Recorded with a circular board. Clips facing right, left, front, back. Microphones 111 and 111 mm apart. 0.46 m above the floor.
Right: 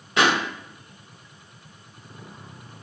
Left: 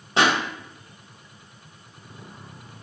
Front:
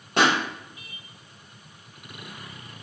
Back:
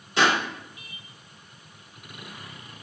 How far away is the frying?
I don't hear frying.